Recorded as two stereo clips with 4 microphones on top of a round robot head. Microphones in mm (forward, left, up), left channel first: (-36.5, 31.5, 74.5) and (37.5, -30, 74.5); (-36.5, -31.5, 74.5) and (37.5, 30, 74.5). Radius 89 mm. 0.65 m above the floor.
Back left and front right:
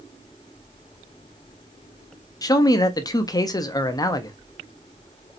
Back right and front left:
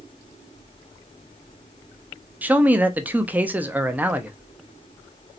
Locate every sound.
2.4 s a man speaking: 110° left, 0.7 m